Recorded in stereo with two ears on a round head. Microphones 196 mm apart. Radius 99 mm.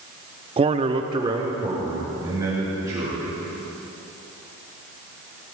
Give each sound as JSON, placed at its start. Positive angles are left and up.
{"t": 0.6, "sound": "a man speaking", "side_deg": -25, "distance_m": 0.5}